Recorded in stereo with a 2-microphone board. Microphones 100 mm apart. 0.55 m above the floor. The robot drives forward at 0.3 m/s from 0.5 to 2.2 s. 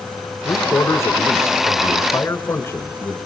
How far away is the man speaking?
About 1.9 m.